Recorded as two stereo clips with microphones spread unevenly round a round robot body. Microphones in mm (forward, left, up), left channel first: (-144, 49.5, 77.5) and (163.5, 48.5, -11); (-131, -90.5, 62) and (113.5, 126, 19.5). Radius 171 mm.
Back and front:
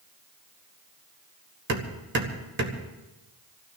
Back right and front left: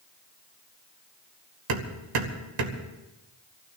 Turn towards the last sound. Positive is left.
turn(degrees=50)